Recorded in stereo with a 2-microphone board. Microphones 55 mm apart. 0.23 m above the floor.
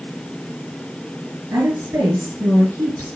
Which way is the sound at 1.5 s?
70° right (ahead or behind).